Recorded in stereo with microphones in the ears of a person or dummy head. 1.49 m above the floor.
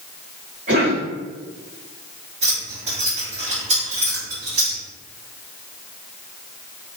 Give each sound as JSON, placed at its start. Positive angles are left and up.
{"t": 0.7, "sound": "a cough", "side_deg": -35, "distance_m": 1.7}
{"t": 2.4, "sound": "keys jangling", "side_deg": -35, "distance_m": 1.2}